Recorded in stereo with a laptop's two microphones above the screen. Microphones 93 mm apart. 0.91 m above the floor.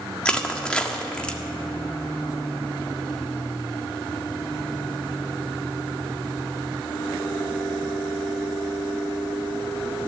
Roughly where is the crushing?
Centre.